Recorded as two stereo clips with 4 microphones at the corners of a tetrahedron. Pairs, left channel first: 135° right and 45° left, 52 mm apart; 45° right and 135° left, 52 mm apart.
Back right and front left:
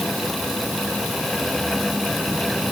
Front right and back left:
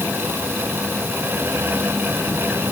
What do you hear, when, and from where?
Only background noise.